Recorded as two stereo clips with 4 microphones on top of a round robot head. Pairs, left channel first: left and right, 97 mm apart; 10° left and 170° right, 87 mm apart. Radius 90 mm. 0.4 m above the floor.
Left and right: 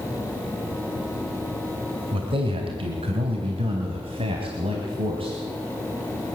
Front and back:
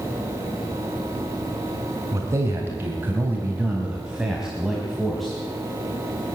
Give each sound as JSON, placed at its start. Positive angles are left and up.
{"t": 2.1, "sound": "a man speaking", "azimuth_deg": -115, "distance_m": 3.5}